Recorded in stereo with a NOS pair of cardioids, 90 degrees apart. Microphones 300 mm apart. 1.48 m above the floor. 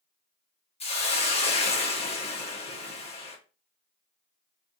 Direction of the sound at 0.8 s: 20° left.